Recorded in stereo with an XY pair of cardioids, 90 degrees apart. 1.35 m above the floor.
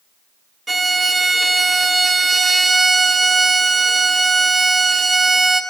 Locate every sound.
0.7 s a violin: 30° right, 0.5 m